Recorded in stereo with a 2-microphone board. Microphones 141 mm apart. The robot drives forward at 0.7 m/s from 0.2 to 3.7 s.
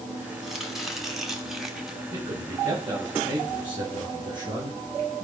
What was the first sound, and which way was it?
Chopping, centre (ahead or behind).